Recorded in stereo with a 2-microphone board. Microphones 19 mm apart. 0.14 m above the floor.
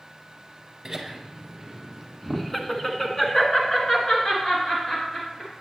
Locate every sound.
0.8 s laughter: 15° right (ahead or behind), 1.7 m; by 5.5 s 40° left (ahead or behind), 2.5 m